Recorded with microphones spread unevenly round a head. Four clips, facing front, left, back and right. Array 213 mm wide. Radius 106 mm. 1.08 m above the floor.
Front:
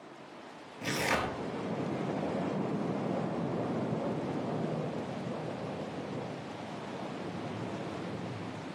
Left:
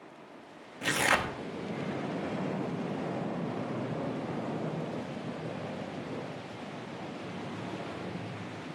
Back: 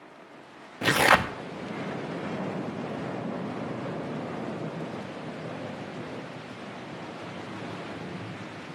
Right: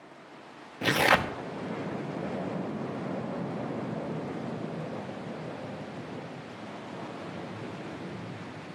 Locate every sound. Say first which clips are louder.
0.8 s tearing paper: right 5 dB, back 10 dB; 140° right, 0.6 m